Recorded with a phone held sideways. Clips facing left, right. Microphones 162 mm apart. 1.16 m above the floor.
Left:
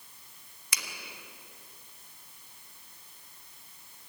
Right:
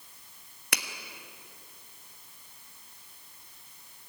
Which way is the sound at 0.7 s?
65° right (ahead or behind).